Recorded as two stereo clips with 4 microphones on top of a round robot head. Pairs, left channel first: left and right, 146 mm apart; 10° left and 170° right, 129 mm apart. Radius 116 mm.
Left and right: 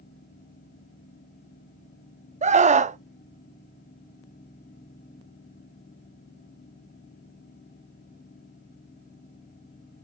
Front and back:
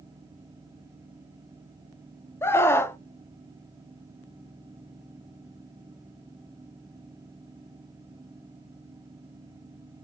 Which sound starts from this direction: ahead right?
A scream, at 2.4 s.